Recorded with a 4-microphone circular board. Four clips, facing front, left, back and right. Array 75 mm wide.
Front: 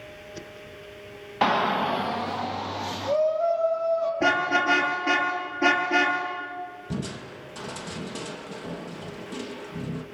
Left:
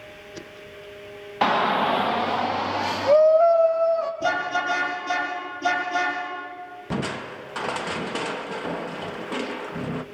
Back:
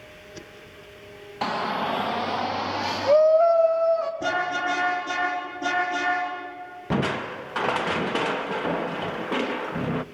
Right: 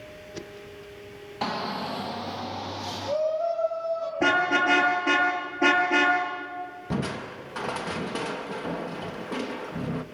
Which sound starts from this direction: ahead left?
A shout, at 1.4 s.